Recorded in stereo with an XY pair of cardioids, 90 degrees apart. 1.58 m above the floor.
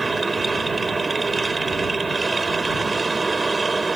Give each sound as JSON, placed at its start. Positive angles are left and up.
{"t": 0.0, "sound": "a machine running", "azimuth_deg": -25}